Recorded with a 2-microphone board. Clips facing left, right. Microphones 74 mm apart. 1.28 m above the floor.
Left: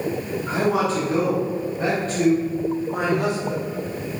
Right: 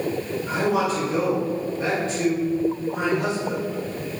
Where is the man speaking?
25° left (ahead or behind), 3 m; by 3.6 s 55° left (ahead or behind), 4 m.